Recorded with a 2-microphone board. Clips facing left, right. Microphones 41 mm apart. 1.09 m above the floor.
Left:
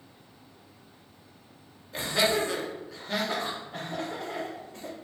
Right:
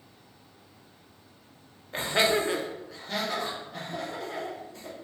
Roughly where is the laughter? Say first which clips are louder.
Right 1 dB; right.